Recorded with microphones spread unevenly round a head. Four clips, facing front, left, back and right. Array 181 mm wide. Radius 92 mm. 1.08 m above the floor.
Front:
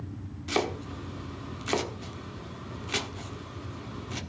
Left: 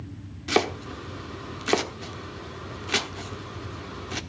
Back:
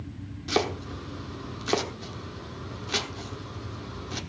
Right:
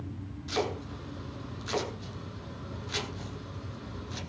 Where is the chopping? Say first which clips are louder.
Left 7 dB, back 2 dB; 105° left, 1.6 m.